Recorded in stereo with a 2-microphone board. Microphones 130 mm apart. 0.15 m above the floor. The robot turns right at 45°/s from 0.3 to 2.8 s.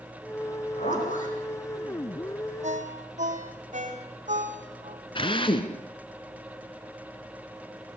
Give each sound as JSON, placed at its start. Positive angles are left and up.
{"t": 0.5, "sound": "a zipper", "azimuth_deg": 55, "distance_m": 8.5}
{"t": 2.6, "sound": "a ringtone", "side_deg": -60, "distance_m": 4.5}
{"t": 5.2, "sound": "a drill", "side_deg": 40, "distance_m": 2.0}